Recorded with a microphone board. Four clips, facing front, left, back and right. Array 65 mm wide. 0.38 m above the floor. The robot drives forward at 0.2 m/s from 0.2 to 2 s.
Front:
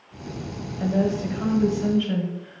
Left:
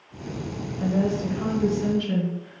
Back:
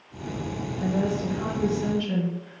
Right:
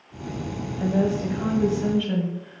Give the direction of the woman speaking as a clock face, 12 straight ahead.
2 o'clock.